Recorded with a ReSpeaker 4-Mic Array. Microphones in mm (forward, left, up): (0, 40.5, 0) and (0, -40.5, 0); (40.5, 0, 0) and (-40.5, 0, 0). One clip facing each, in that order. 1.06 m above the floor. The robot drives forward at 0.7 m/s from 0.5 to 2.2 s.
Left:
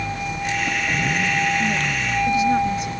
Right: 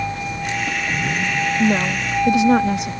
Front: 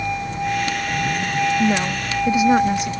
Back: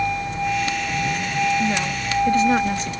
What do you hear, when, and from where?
1.6 s a woman speaking: 65° right; by 2.9 s 80° right